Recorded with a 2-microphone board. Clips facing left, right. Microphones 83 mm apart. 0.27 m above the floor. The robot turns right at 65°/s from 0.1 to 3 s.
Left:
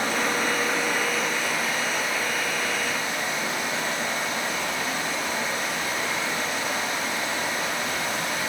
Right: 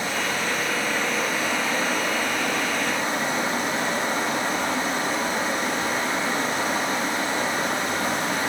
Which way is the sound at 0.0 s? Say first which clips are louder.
Left 1 dB; 110° left.